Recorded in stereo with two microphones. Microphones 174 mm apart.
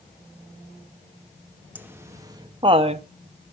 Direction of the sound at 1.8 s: 10° right (ahead or behind).